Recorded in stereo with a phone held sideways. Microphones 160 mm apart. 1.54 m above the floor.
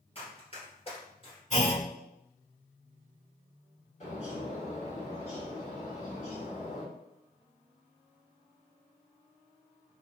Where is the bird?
50° left (ahead or behind), 1.9 m.